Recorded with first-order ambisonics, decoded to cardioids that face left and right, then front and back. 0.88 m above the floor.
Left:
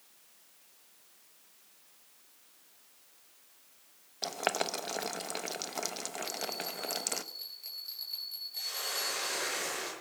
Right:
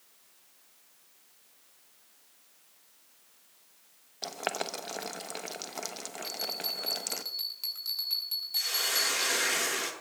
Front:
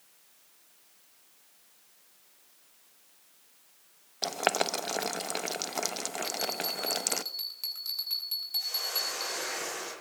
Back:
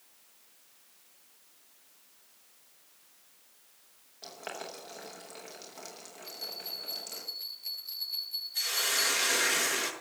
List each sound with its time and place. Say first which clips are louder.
4.2 s boiling: left 2 dB, front 13 dB; 5° left, 0.9 m
6.2 s a bell: right 5 dB, front 5 dB; 40° right, 8.5 m
8.6 s a hiss: right 7 dB, back 4 dB; 145° right, 6.5 m